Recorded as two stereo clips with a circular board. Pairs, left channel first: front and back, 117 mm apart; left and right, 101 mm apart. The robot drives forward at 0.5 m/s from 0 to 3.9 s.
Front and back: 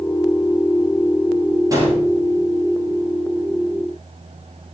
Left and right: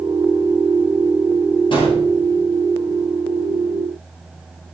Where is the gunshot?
120° left, 8 m.